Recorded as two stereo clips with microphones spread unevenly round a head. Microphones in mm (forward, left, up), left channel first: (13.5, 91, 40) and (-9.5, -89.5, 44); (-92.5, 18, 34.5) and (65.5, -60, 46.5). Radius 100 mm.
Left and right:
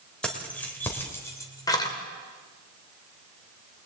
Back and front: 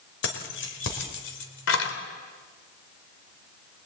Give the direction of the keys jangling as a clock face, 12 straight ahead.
6 o'clock.